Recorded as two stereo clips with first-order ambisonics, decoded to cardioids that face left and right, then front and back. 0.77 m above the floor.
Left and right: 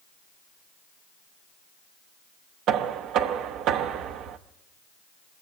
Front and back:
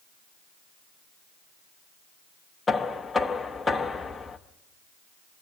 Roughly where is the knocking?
Right.